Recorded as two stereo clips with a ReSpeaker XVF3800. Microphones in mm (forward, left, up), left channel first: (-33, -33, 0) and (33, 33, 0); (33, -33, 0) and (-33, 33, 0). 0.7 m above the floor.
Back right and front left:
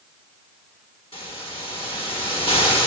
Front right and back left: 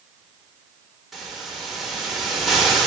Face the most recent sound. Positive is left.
turn(degrees=-135)